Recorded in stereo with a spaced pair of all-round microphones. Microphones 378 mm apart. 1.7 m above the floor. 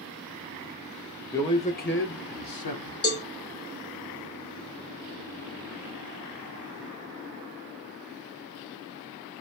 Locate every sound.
1.3 s a man speaking: 5° left (ahead or behind), 0.9 m; by 2.9 s 80° left, 0.8 m
3.0 s a cowbell: 40° left (ahead or behind), 0.8 m